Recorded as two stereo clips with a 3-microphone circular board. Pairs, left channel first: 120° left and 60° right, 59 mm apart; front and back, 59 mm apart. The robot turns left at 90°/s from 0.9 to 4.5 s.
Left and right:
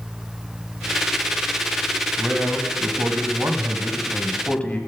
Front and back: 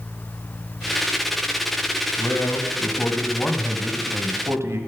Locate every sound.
2.2 s a man speaking: 30° left, 1.6 m; by 4.8 s straight behind, 1.6 m